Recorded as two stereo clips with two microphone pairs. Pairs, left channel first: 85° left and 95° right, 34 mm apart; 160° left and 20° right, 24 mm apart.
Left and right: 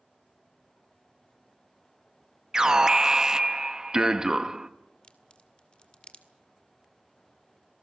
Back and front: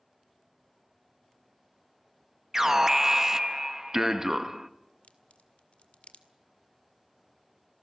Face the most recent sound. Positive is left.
turn(degrees=140)